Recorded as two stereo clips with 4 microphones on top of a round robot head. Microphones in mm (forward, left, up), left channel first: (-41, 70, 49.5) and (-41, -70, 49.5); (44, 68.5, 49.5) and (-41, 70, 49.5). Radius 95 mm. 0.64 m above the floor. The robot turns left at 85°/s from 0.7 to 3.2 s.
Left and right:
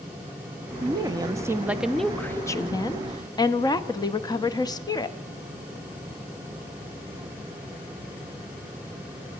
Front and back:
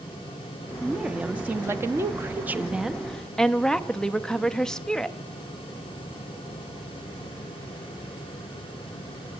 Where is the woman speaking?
85° right, 0.6 m; by 5.2 s 75° left, 0.6 m.